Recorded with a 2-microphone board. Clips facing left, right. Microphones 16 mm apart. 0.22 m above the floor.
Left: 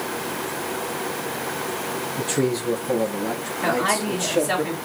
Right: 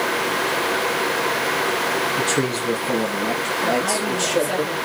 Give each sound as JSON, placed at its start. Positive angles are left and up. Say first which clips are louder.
{"t": 2.2, "sound": "a man speaking", "louder": "right 2 dB", "side_deg": -70, "distance_m": 3.0}
{"t": 3.6, "sound": "a woman speaking", "louder": "left 2 dB", "side_deg": 25, "distance_m": 2.0}